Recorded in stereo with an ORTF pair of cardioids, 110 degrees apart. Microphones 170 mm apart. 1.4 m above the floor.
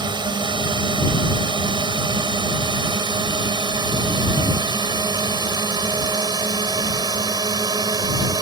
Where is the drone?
25° right.